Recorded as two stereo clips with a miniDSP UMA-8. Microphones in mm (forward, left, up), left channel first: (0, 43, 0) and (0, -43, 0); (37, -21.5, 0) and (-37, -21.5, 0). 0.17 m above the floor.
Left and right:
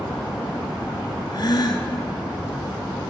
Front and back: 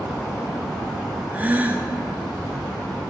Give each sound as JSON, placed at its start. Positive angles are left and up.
{"t": 1.3, "sound": "a gasp", "azimuth_deg": 115, "distance_m": 0.9}